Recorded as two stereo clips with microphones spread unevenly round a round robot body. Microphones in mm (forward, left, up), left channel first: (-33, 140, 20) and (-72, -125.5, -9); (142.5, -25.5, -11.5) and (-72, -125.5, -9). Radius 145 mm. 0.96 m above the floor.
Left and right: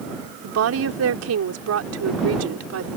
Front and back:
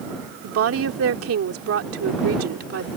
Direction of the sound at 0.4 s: 130° right.